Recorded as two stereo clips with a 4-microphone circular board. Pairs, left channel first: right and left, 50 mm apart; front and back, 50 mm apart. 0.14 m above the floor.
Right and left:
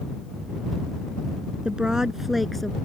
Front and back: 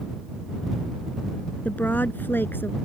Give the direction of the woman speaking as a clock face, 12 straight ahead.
11 o'clock.